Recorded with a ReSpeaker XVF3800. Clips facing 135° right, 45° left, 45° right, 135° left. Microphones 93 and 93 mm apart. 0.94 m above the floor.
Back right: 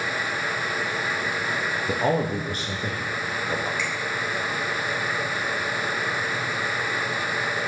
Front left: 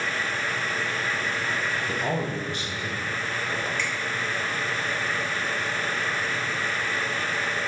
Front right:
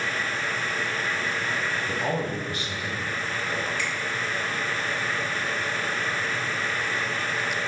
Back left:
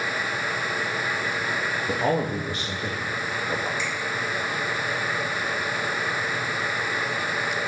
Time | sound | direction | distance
1.9 | a man speaking | 165° right | 0.8 m
3.8 | a finger snap | 50° right | 2.5 m